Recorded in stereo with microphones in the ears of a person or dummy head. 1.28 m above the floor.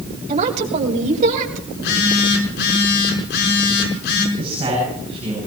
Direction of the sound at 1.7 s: 70° left (ahead or behind).